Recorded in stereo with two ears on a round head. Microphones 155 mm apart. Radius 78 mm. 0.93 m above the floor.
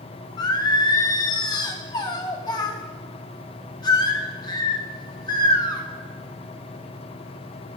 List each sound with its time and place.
0.4 s singing: 25° left (ahead or behind), 1.0 m